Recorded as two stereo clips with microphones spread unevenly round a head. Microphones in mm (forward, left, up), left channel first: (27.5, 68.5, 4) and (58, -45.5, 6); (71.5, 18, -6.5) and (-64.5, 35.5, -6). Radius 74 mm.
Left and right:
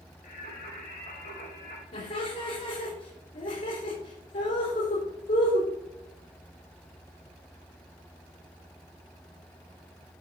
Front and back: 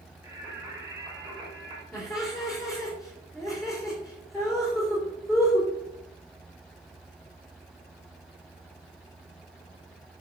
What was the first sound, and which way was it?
Singing, 105° left.